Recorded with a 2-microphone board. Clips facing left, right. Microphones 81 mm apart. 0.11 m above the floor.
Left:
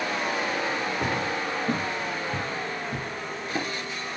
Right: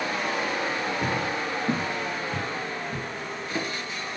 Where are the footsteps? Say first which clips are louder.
Even; centre (ahead or behind), 1.0 m; by 3.6 s 5° left (ahead or behind), 2.5 m.